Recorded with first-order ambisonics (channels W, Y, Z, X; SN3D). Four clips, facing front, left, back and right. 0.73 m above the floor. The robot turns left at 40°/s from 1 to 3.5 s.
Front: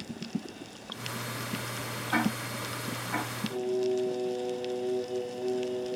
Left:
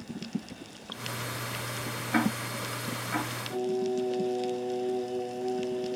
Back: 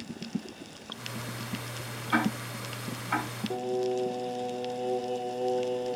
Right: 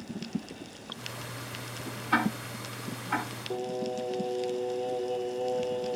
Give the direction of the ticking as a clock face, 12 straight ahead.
4 o'clock.